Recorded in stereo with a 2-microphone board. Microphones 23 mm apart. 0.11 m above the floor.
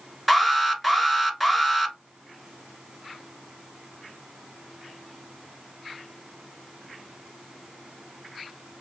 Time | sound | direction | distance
0.3 | an alarm | 5° right (ahead or behind) | 1.2 m